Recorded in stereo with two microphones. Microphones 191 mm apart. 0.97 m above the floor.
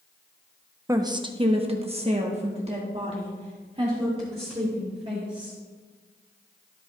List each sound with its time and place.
0.9 s a woman speaking: 15° right (ahead or behind), 0.6 m; by 5.6 s 30° right (ahead or behind), 3 m